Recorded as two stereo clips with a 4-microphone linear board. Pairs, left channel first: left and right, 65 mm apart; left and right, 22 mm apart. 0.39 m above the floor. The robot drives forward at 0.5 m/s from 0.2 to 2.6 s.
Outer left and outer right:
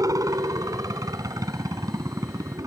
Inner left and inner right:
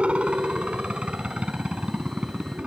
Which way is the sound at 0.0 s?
60° right (ahead or behind).